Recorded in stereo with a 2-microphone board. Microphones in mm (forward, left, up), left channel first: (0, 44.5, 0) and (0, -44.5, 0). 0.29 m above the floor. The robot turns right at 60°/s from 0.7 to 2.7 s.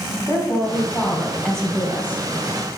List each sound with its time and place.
0.3 s a woman speaking: 115° left, 1.9 m; by 2.3 s 150° right, 1.9 m